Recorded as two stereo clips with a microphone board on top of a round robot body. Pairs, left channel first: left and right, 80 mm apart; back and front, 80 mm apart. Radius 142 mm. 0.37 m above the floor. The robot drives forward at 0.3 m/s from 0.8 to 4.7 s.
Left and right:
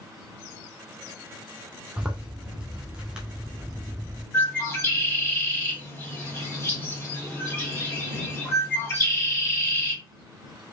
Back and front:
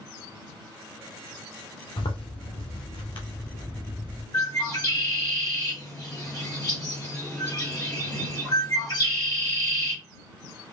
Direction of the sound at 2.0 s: 170° right.